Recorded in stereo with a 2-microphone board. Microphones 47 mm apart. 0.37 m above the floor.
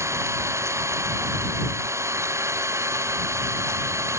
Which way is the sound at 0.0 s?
80° right.